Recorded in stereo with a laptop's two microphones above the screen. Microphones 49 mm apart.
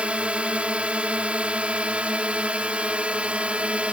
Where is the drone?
25° right (ahead or behind).